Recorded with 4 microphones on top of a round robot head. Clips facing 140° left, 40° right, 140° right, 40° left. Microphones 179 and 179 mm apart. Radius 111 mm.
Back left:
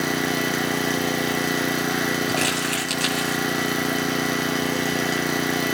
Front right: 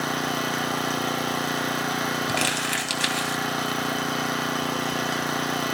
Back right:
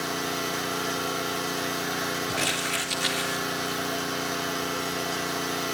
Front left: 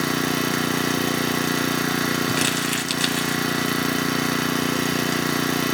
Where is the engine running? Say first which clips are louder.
Back left 4 dB, front left 8 dB; 65° left, 1.2 m.